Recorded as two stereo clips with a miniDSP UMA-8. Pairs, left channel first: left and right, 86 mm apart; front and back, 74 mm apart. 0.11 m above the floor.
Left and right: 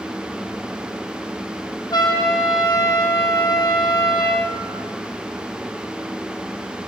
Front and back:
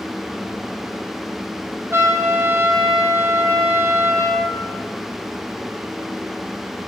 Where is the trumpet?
125° left, 4 m.